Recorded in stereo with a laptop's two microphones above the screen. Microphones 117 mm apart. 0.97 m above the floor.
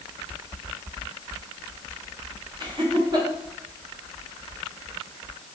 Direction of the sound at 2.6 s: 40° right (ahead or behind).